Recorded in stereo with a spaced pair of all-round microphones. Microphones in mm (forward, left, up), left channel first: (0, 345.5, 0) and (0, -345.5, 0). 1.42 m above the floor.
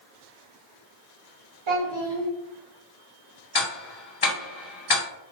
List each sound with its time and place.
1.7 s a child speaking: 45° right (ahead or behind), 1.0 m
3.5 s ticking: 35° left (ahead or behind), 0.8 m